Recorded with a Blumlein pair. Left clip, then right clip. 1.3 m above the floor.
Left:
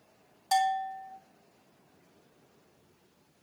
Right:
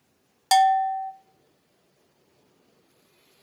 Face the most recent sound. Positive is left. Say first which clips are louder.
# right 9 dB
turn(degrees=-55)